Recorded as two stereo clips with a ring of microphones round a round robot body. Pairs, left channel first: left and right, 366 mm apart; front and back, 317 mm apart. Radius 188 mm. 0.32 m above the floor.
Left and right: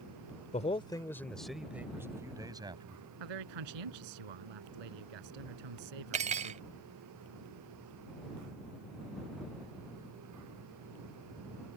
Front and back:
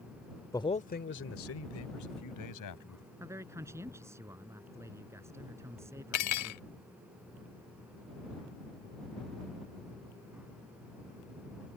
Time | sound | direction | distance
0.5 | a man speaking | 60° left | ?
3.2 | a man speaking | 95° right | ?
6.1 | cutlery clinking | 20° right | ?